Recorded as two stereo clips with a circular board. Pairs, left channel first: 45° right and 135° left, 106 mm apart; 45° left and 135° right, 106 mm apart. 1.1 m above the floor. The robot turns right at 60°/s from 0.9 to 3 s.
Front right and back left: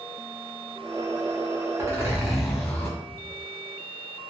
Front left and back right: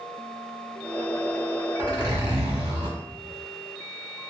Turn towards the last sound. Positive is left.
turn(degrees=-105)